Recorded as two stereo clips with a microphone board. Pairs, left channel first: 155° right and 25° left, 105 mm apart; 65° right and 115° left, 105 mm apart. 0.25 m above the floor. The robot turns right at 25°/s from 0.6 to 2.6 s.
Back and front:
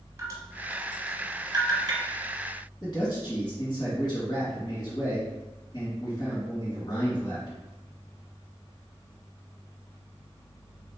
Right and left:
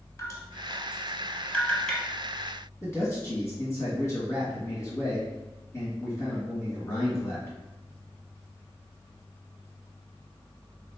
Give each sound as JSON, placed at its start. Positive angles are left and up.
{"t": 0.2, "sound": "dripping", "azimuth_deg": -20, "distance_m": 1.0}
{"t": 2.8, "sound": "a man speaking", "azimuth_deg": -125, "distance_m": 1.9}